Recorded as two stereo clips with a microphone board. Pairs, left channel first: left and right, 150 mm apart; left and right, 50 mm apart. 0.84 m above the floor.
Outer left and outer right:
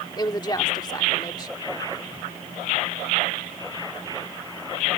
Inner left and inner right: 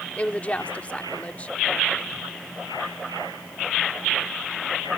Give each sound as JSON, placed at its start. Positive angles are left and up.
{"t": 0.2, "sound": "a woman speaking", "side_deg": 30}